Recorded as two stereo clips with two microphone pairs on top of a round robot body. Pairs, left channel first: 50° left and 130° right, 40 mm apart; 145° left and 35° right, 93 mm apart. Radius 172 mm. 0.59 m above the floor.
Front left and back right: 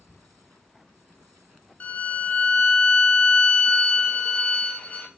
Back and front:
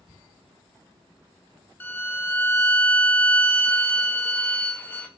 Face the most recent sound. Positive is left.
turn(degrees=90)